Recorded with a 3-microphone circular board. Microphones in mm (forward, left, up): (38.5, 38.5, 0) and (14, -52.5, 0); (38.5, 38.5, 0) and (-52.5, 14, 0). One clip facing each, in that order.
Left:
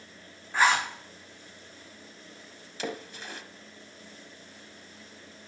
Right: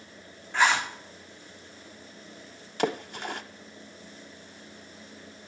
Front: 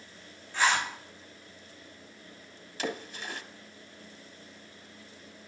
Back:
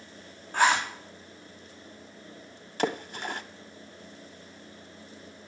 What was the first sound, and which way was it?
A zipper, 155° left.